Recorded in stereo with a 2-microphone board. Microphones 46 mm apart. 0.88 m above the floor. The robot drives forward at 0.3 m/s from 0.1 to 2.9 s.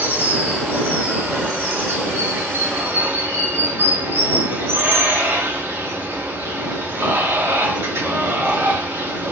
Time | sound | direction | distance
0.0 | running water | 50° right (ahead or behind) | 1.6 m